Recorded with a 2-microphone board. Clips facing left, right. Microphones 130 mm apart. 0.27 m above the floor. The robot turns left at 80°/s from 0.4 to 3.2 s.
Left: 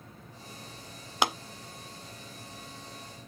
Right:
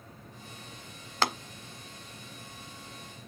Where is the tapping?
15° left (ahead or behind), 0.5 m; by 1.3 s 10° left (ahead or behind), 0.5 m.